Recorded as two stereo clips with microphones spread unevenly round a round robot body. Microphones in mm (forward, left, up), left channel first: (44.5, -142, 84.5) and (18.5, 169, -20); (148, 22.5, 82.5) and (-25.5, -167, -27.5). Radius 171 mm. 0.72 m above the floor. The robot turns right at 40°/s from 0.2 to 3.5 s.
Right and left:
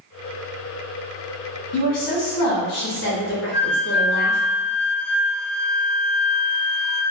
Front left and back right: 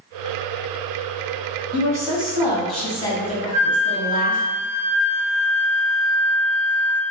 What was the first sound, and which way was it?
A woman speaking, 95° right.